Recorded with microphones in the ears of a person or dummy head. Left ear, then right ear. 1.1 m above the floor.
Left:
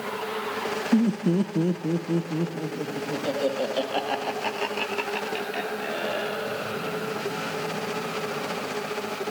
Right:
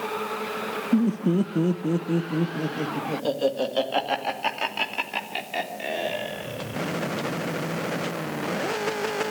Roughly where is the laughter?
Centre.